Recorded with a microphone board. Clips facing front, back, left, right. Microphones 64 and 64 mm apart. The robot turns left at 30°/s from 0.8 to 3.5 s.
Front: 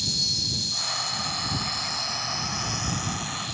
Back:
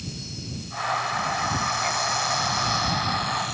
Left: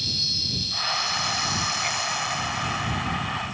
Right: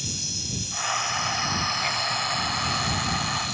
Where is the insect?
10° right; by 3.6 s 90° right.